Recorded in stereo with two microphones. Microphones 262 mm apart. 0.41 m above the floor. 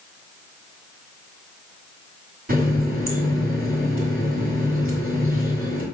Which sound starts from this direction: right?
A running tap, at 2.5 s.